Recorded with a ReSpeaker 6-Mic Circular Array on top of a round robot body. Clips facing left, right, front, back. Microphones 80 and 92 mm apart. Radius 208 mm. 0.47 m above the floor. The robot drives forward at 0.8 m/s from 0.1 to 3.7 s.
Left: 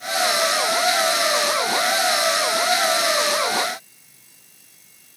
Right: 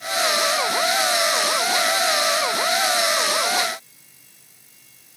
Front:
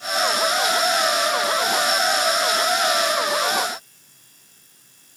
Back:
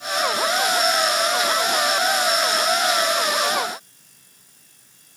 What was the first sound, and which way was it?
Only background noise.